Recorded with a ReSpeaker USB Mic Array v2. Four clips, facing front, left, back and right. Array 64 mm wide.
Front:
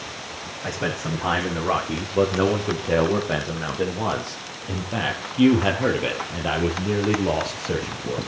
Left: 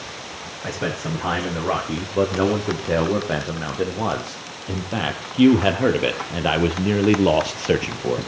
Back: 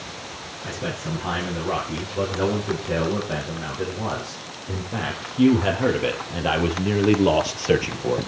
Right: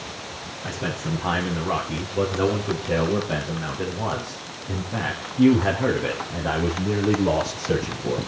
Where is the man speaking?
55° left, 9 m; by 8.3 s 135° left, 3 m.